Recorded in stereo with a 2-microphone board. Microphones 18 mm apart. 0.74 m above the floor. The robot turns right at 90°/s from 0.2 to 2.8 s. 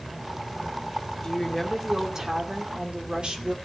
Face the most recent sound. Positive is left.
turn(degrees=-85)